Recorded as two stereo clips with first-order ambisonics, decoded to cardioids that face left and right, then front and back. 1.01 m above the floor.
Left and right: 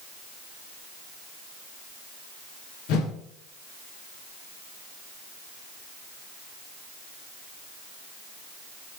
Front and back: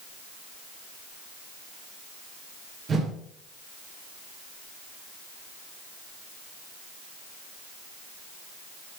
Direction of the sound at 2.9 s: 110° left.